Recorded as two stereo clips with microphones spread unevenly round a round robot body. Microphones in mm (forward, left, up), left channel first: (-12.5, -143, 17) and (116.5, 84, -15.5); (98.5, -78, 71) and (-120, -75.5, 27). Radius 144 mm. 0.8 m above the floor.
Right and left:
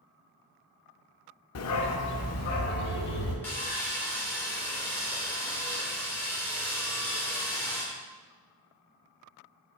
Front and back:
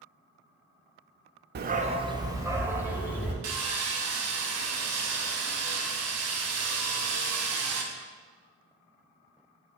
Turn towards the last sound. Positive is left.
turn(degrees=155)